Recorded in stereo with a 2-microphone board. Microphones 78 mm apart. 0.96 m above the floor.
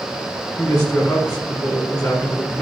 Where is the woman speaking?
40° left (ahead or behind), 3 m.